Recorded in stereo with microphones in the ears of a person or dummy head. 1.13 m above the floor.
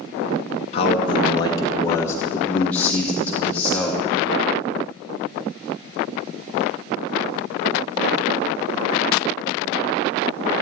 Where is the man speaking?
30° left (ahead or behind), 0.8 m; by 4.0 s 5° left (ahead or behind), 2.5 m.